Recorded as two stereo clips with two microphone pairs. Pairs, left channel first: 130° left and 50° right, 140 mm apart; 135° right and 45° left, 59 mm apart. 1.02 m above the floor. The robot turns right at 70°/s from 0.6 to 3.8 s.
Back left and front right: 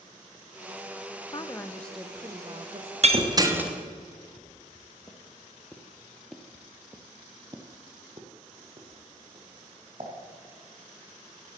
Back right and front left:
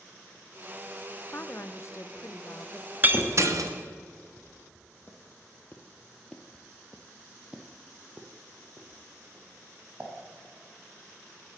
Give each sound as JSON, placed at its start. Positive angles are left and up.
{"t": 1.3, "sound": "a woman speaking", "azimuth_deg": 175, "distance_m": 0.6}
{"t": 3.0, "sound": "breaking glass", "azimuth_deg": -15, "distance_m": 0.9}
{"t": 4.4, "sound": "footsteps", "azimuth_deg": 180, "distance_m": 1.8}